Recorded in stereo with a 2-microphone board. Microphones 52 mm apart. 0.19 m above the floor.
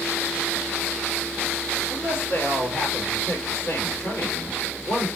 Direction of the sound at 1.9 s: 45° left (ahead or behind).